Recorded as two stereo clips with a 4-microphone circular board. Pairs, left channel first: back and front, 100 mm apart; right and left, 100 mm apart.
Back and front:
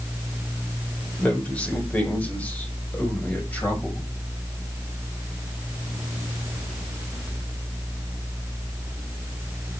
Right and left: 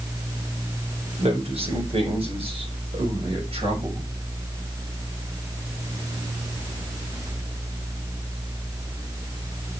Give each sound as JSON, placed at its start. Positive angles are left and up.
{"t": 1.2, "sound": "a man speaking", "azimuth_deg": 105, "distance_m": 5.0}